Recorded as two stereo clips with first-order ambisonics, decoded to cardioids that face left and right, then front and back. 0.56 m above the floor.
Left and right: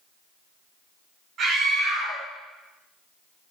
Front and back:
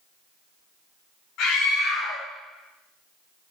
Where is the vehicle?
I don't hear a vehicle.